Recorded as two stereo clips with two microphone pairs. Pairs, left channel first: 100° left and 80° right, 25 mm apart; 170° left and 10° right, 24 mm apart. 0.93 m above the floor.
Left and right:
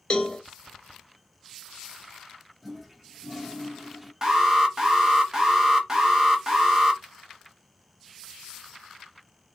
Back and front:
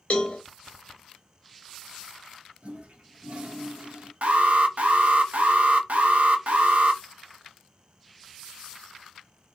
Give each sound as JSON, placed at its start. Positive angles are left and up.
{"t": 0.1, "sound": "a cowbell", "azimuth_deg": 145, "distance_m": 0.6}
{"t": 2.6, "sound": "a toilet flushing", "azimuth_deg": 0, "distance_m": 0.6}
{"t": 4.2, "sound": "an alarm", "azimuth_deg": -20, "distance_m": 0.7}